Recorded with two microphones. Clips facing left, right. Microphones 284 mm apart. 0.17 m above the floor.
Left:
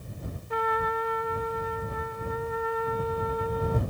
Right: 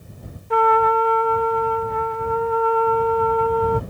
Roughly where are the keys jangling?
I don't hear keys jangling.